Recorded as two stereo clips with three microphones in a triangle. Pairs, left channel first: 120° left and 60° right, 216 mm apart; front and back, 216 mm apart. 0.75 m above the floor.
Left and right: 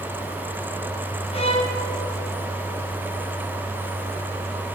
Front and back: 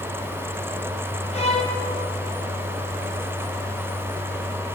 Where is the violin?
55° left, 0.7 m.